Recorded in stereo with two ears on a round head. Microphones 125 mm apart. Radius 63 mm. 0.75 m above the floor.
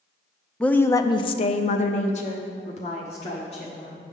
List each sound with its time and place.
0.6 s a woman speaking: 5° left (ahead or behind), 0.5 m; by 3.9 s 45° left (ahead or behind), 1.6 m